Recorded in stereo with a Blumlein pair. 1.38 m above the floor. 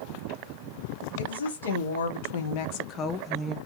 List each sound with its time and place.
1.2 s a woman speaking: 70° left, 1.4 m; by 3.6 s 10° right, 0.5 m